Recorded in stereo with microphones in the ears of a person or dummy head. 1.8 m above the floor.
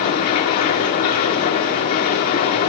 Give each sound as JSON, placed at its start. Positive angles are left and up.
{"t": 0.0, "sound": "a machine running", "side_deg": 40, "distance_m": 4.0}